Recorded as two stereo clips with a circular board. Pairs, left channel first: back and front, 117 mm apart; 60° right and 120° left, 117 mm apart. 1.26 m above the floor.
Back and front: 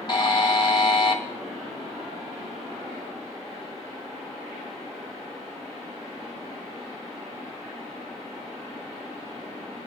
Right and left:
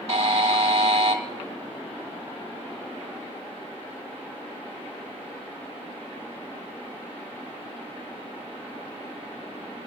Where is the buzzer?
130° left, 1.9 m.